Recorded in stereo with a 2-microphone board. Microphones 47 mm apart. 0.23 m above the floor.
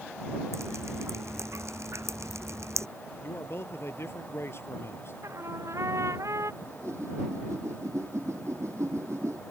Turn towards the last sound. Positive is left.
turn(degrees=-75)  # may be behind; listen again after turning